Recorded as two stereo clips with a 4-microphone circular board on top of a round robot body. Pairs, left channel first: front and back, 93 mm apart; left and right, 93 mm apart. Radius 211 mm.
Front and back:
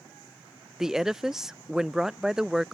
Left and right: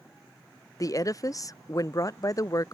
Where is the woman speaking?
100° left.